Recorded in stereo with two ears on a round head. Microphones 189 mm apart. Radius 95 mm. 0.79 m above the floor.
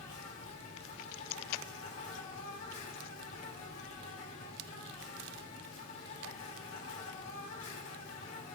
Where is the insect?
70° left (ahead or behind), 4 m.